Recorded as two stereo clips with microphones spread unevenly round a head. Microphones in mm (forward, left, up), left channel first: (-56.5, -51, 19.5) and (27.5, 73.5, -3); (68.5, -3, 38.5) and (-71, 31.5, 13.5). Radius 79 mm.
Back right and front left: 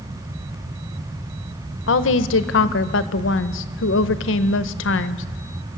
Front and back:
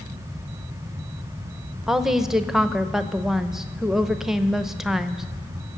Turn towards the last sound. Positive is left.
turn(degrees=-110)